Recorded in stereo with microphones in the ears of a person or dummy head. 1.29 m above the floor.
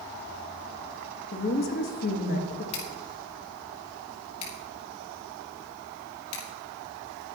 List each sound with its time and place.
1.3 s a woman speaking: 45° left (ahead or behind), 1.6 m
2.7 s scissors: 30° left (ahead or behind), 3.5 m